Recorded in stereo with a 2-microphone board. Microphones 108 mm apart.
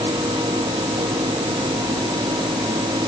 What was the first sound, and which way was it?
Only background noise.